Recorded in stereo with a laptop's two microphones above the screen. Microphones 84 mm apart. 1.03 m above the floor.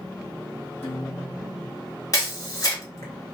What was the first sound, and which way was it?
A guitar, 25° left (ahead or behind).